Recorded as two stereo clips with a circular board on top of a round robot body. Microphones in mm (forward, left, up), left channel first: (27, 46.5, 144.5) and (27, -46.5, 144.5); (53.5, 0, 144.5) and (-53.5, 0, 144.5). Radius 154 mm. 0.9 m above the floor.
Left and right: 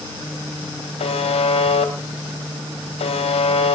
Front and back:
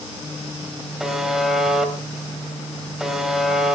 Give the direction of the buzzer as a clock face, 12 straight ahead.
9 o'clock.